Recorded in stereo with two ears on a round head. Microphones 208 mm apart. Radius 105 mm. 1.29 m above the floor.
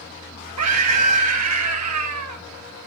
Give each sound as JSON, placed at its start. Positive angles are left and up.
{"t": 0.6, "sound": "a scream", "side_deg": -80, "distance_m": 1.6}